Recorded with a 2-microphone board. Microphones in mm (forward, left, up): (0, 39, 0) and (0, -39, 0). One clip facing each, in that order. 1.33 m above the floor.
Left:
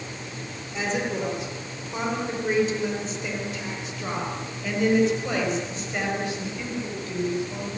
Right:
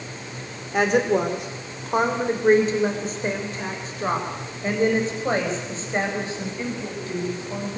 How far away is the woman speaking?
About 3.5 m.